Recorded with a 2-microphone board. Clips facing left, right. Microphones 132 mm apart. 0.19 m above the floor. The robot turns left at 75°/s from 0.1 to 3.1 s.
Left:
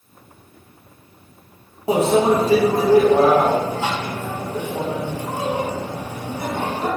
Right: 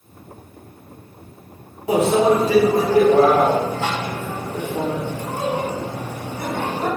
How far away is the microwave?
About 0.9 m.